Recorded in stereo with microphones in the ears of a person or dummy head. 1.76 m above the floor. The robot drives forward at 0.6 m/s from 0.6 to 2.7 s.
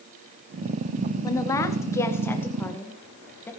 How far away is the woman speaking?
About 1.0 m.